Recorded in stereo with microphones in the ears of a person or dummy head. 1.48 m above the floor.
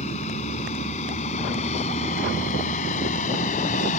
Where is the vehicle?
40° left (ahead or behind).